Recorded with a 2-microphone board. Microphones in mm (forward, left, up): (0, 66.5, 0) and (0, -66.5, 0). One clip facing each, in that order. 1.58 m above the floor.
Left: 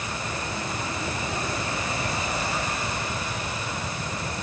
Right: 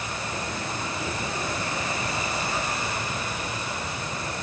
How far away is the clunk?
I don't hear a clunk.